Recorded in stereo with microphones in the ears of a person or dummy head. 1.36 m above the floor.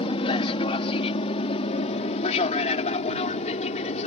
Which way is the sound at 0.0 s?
25° left (ahead or behind).